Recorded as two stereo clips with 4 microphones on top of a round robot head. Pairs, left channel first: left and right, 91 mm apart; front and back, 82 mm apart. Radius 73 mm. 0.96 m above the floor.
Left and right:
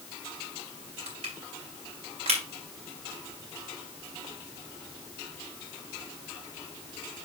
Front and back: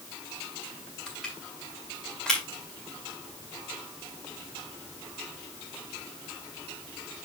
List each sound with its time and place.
1.1 s crushing: 85° right, 3.5 m